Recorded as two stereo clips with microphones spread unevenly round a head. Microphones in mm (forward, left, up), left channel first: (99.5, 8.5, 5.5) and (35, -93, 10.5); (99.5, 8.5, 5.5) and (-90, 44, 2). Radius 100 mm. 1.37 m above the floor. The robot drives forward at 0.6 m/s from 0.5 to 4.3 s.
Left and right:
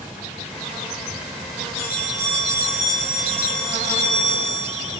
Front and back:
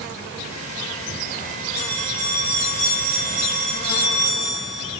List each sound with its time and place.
1.8 s a bell: 160° right, 5.5 m; by 5.0 s 165° right, 7 m